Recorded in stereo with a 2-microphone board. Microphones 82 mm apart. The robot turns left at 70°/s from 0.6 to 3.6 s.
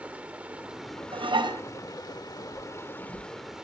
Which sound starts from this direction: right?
Dishes clattering, at 1.1 s.